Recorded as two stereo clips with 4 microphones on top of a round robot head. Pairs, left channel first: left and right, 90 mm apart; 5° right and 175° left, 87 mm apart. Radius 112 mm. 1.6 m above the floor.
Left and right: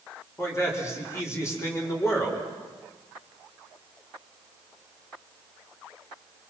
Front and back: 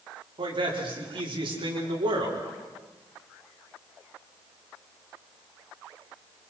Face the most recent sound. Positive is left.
turn(degrees=150)